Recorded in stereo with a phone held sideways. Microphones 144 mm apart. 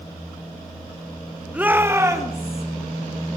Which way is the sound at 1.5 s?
10° right (ahead or behind).